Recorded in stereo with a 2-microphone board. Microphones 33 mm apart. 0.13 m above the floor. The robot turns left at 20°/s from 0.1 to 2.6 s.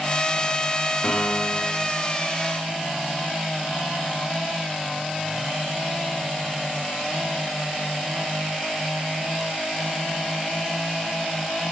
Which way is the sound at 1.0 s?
50° left (ahead or behind).